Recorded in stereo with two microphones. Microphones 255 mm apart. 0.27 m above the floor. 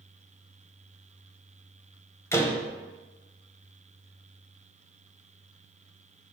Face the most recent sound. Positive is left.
turn(degrees=10)  # may be behind; listen again after turning